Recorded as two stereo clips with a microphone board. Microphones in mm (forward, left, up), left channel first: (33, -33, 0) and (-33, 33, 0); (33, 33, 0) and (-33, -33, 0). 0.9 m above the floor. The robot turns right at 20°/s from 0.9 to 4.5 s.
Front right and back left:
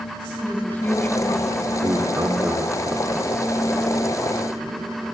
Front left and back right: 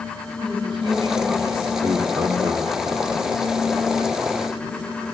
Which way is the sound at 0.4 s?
115° right.